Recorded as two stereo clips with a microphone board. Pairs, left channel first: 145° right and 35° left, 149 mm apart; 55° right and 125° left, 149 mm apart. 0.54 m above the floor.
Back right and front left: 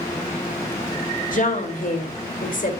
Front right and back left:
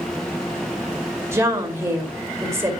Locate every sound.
1.3 s a woman speaking: 165° right, 2 m